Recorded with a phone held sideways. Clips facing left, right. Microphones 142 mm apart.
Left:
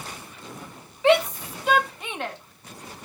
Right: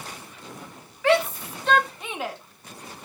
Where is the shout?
20° left (ahead or behind), 2 m; by 2.4 s 10° right (ahead or behind), 2.0 m.